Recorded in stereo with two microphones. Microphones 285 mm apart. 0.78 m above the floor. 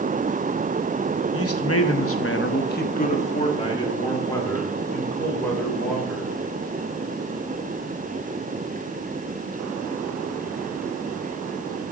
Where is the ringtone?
No ringtone in this recording.